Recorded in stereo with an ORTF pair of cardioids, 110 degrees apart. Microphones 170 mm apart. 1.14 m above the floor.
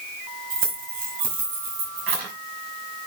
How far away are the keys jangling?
About 4.5 m.